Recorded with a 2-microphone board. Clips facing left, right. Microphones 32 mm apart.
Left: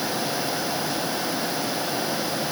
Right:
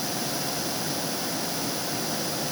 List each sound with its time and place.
Only background noise.